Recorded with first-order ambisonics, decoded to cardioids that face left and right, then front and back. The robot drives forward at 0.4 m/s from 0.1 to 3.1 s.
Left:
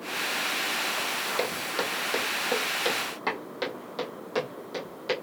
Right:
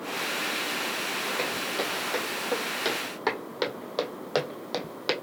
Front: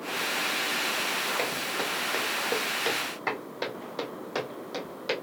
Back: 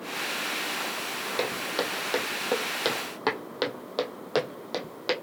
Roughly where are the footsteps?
Behind left.